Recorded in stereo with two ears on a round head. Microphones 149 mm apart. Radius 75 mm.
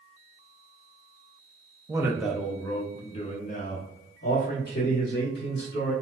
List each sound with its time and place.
1.9 s a man speaking: 20° right (ahead or behind), 0.7 m; by 5.9 s 70° left (ahead or behind), 2.0 m